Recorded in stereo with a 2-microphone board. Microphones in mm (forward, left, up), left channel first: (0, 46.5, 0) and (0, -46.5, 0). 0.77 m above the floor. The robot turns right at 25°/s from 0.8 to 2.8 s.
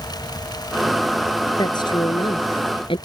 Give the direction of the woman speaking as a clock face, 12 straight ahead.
10 o'clock.